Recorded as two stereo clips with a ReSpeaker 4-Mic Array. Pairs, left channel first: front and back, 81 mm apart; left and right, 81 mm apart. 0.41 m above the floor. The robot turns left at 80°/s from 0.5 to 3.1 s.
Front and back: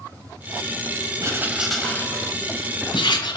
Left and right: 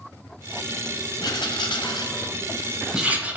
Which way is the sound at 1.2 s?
130° left.